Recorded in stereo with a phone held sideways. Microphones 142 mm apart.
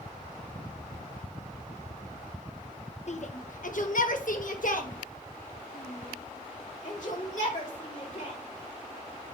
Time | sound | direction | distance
3.1 | a shout | 55° left (ahead or behind) | 0.9 m